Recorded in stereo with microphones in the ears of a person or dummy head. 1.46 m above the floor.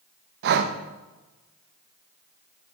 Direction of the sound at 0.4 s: 60° right (ahead or behind).